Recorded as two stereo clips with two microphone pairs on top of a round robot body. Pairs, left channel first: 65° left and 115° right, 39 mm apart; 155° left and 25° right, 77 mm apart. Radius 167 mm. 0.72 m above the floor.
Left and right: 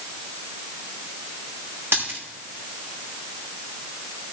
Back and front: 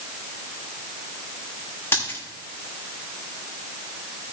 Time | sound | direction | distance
1.9 | a dropped coin | 140° right | 3 m